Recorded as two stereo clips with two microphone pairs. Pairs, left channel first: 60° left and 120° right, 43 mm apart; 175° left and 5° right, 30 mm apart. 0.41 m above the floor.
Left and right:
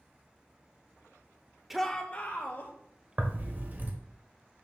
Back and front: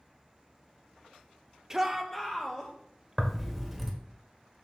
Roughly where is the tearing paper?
Right.